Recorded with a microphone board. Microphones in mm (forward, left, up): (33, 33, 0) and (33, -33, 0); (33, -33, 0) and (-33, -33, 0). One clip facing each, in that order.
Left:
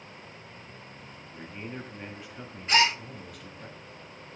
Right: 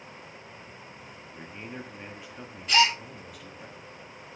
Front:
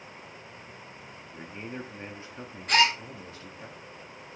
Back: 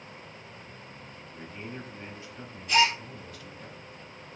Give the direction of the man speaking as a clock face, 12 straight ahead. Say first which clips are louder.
Left 1 dB, front 2 dB; 12 o'clock.